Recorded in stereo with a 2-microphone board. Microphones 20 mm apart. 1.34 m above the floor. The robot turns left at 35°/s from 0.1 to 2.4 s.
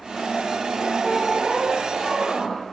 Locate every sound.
1.0 s a squeak: 170° right, 2 m; by 2.6 s 145° left, 2 m